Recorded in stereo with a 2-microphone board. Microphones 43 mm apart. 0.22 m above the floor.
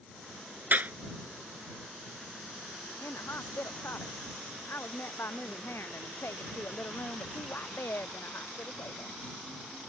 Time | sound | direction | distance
0.7 | a clap | 40° right (ahead or behind) | ?
3.0 | a woman speaking | 65° left (ahead or behind) | ?